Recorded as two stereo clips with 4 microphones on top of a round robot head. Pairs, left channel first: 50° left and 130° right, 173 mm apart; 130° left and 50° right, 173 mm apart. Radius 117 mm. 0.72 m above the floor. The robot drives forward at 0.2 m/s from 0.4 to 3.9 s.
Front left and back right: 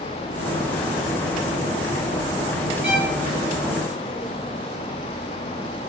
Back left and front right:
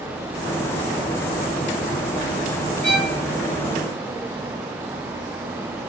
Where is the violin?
170° right, 1.4 m.